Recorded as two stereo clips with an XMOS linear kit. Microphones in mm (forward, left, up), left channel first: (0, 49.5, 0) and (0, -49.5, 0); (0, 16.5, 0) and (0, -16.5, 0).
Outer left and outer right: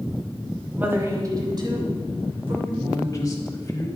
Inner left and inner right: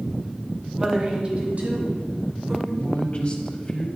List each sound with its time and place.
0.8 s a woman speaking: 15° right (ahead or behind), 1.2 m; by 2.5 s 65° right (ahead or behind), 2 m
2.6 s a man speaking: 35° left (ahead or behind), 1.2 m